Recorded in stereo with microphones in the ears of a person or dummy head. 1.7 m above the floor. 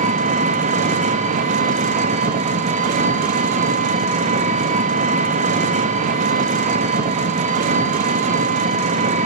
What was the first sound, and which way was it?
An engine running, 40° right (ahead or behind).